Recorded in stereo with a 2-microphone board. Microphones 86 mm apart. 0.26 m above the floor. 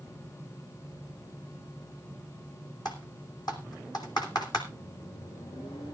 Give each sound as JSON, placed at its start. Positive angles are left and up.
{"t": 2.9, "sound": "typing on a keyboard", "side_deg": 55, "distance_m": 3.0}
{"t": 4.7, "sound": "a microwave", "side_deg": 80, "distance_m": 6.5}